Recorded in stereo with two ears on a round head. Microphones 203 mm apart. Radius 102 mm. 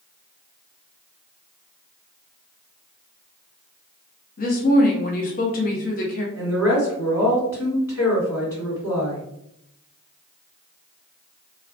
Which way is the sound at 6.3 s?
10° left (ahead or behind).